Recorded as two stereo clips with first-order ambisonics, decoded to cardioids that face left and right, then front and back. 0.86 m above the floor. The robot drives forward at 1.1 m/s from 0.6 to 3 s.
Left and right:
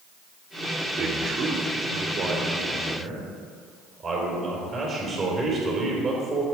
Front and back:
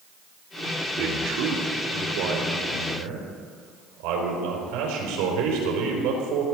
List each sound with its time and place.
1.0 s a man speaking: 150° right, 2 m; by 6.5 s 165° right, 4 m